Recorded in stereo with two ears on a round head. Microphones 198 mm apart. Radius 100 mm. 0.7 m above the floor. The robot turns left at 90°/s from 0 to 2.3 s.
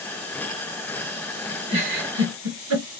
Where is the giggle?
20° right (ahead or behind), 1.8 m; by 2.9 s 75° right (ahead or behind), 1.8 m.